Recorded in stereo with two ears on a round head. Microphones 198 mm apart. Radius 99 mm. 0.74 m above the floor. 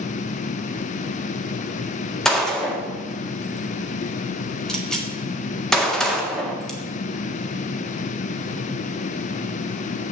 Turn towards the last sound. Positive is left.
turn(degrees=0)  # may be behind; listen again after turning